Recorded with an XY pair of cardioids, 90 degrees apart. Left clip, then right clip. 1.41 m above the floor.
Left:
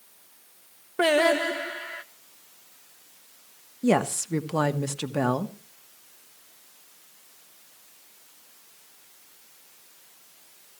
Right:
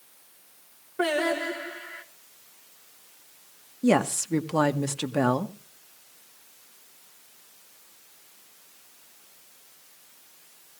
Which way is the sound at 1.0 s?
55° left.